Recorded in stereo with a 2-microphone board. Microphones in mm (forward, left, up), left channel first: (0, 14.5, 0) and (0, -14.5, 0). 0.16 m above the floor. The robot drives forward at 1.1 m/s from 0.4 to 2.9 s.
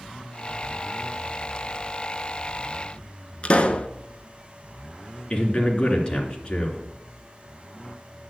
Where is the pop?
40° left (ahead or behind), 0.7 m.